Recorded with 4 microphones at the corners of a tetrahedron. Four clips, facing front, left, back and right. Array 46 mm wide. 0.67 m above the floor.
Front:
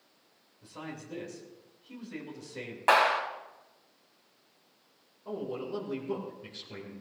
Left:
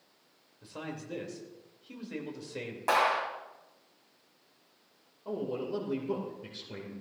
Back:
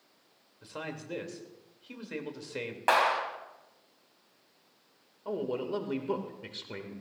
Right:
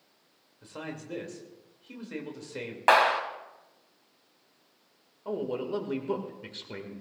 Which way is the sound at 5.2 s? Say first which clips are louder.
Right 3 dB, back 3 dB; 140° right.